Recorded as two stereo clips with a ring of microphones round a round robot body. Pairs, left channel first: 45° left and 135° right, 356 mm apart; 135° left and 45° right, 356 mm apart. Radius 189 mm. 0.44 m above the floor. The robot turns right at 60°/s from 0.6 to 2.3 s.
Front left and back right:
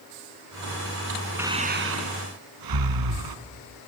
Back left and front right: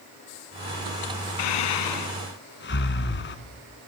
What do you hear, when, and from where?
1.4 s breathing: 140° left, 1.9 m; by 3.4 s 165° right, 1.9 m